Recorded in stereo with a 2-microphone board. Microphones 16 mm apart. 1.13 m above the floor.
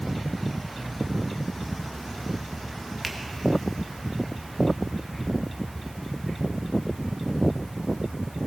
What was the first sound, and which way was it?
A finger snap, 5° left (ahead or behind).